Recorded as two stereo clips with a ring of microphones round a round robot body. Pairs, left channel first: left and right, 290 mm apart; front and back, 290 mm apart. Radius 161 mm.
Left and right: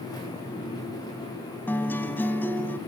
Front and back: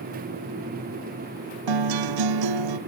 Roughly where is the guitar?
Behind.